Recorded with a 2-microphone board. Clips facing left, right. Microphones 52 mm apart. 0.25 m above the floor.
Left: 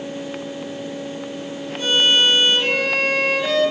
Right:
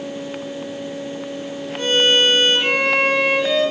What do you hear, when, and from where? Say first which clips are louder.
1.8 s a violin: right 1 dB; 50° right (ahead or behind), 1.9 m